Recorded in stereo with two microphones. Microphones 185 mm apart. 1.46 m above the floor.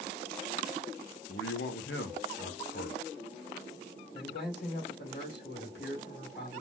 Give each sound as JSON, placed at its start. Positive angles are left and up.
{"t": 1.3, "sound": "a man speaking", "side_deg": 85, "distance_m": 1.6}
{"t": 4.1, "sound": "a man speaking", "side_deg": 70, "distance_m": 2.5}